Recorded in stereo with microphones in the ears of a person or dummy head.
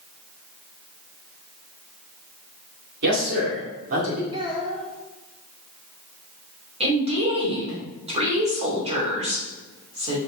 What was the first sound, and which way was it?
A man speaking, 60° right (ahead or behind).